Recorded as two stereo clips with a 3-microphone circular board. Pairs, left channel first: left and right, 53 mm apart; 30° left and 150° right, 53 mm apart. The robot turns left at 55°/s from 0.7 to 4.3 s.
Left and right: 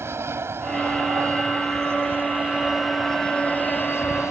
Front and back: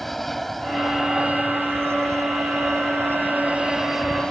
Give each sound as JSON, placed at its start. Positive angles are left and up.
{"t": 0.0, "sound": "an aircraft", "azimuth_deg": -55}